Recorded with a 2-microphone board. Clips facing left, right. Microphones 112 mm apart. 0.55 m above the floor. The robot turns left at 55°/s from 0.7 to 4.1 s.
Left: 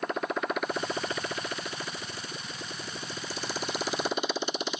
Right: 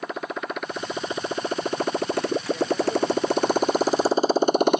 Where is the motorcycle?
Centre (ahead or behind); by 4.8 s 60° right (ahead or behind).